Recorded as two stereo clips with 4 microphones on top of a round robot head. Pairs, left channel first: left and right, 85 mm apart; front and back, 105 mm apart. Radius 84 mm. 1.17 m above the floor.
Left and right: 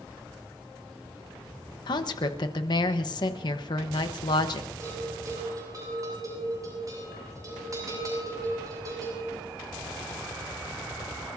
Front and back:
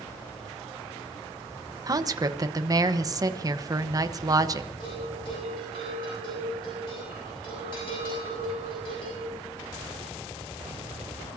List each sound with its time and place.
1.9 s a woman speaking: 130° left, 1.1 m
4.8 s a bell: 45° right, 7.5 m